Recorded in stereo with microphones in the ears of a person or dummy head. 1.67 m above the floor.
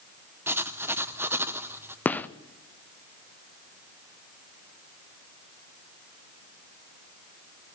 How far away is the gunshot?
About 0.6 m.